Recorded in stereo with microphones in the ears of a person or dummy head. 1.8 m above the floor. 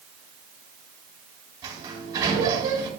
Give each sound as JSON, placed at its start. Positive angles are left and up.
{"t": 1.6, "sound": "a sliding door", "side_deg": -20, "distance_m": 2.5}